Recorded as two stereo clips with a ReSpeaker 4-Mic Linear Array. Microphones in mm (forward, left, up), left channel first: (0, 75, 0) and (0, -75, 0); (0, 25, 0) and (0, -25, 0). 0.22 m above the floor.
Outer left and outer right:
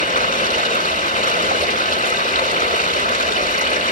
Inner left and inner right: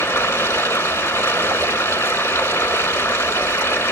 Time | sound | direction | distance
0.0 | running water | 65° left (ahead or behind) | 1.6 m